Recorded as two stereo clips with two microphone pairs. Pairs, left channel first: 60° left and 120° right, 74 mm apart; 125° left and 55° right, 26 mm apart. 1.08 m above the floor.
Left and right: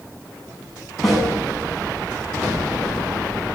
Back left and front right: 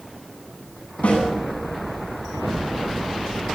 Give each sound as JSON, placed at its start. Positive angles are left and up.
{"t": 1.0, "sound": "a snare drum", "azimuth_deg": 150, "distance_m": 10.0}